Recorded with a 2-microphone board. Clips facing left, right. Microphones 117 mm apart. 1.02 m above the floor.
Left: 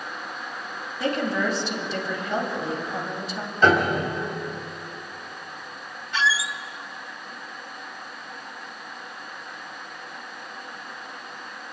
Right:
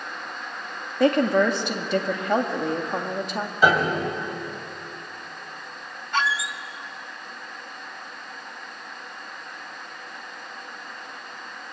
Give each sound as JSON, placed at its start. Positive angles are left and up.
{"t": 1.0, "sound": "a woman speaking", "side_deg": -60, "distance_m": 2.0}
{"t": 3.6, "sound": "a piano", "side_deg": -10, "distance_m": 3.0}
{"t": 6.1, "sound": "a squeak", "side_deg": -55, "distance_m": 0.7}